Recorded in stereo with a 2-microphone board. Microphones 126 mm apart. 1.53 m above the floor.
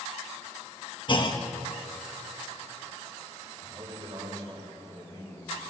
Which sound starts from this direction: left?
A clunk, at 1.1 s.